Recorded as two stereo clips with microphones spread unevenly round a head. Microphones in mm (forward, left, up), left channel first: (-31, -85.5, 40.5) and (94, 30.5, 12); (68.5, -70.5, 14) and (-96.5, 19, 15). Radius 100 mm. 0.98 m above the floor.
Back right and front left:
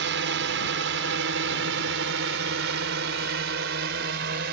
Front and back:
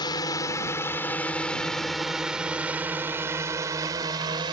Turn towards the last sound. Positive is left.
turn(degrees=80)